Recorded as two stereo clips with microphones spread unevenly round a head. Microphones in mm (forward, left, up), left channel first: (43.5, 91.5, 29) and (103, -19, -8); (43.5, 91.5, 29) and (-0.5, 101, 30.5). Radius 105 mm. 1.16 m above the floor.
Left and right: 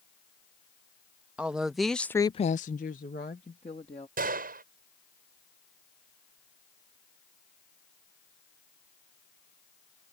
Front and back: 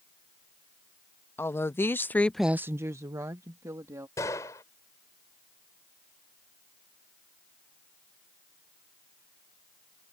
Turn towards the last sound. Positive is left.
turn(degrees=-55)